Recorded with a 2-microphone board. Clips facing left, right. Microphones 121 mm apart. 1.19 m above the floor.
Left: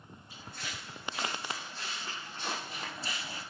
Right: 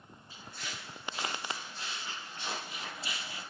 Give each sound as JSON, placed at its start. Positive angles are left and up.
{"t": 0.3, "sound": "footsteps", "side_deg": 45, "distance_m": 5.0}